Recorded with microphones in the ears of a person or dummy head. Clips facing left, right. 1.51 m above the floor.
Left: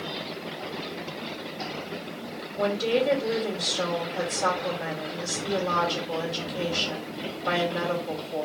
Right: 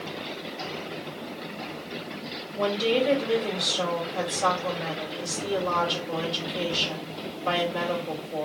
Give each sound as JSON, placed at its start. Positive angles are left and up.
{"t": 2.6, "sound": "a woman speaking", "side_deg": -40, "distance_m": 2.5}